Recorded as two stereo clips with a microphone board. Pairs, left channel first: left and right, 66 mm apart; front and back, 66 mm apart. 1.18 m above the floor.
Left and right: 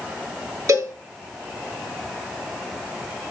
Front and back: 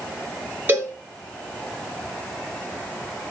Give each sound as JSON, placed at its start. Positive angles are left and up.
{"t": 0.7, "sound": "a cowbell", "azimuth_deg": -115, "distance_m": 4.0}